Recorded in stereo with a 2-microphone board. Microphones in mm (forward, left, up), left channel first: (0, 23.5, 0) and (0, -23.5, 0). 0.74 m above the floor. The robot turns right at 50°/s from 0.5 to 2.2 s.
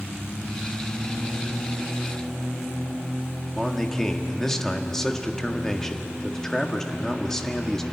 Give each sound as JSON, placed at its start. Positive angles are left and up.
{"t": 3.5, "sound": "a man speaking", "side_deg": 15, "distance_m": 1.5}